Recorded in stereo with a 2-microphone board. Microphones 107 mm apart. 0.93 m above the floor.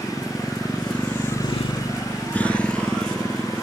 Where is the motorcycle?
Centre (ahead or behind); by 3.6 s 5° left (ahead or behind).